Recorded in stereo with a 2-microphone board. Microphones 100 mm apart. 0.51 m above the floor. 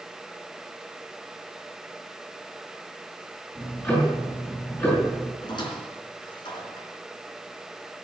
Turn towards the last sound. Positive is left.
turn(degrees=50)  # may be behind; listen again after turning